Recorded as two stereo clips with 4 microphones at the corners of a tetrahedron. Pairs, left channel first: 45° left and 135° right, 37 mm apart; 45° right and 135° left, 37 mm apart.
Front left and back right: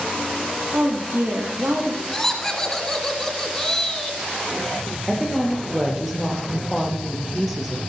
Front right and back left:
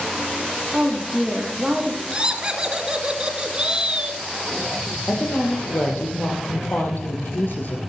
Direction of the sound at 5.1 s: 55° right.